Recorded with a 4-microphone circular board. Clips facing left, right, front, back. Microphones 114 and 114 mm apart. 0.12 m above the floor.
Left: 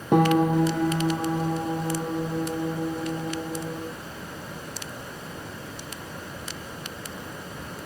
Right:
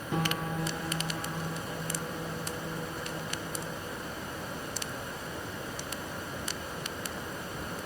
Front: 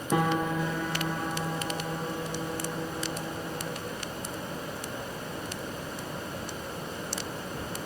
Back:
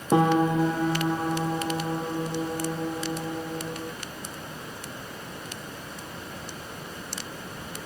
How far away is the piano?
About 1.1 m.